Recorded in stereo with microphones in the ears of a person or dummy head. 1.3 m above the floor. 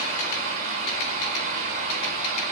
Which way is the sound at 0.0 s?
50° right (ahead or behind).